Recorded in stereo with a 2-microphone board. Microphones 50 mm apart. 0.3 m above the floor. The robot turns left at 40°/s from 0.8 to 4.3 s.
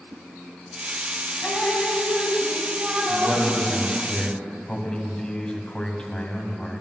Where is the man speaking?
160° right, 2.5 m; by 6.8 s 155° left, 2.5 m.